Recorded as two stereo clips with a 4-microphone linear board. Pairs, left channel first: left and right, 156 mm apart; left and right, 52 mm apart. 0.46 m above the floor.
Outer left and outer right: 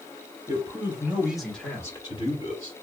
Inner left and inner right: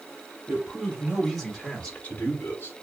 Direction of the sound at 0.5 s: 25° right (ahead or behind).